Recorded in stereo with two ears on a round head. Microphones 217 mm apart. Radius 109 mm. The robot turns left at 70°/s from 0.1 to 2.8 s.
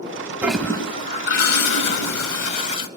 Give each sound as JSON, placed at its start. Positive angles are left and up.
{"t": 0.4, "sound": "a toilet flushing", "azimuth_deg": -170, "distance_m": 1.1}